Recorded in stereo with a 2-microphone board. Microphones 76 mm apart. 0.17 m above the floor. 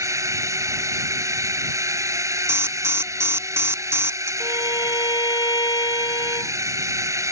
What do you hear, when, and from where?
0.0 s a drone: 40° right (ahead or behind)
2.5 s an alarm: 35° right (ahead or behind)
4.4 s a violin: 70° left (ahead or behind)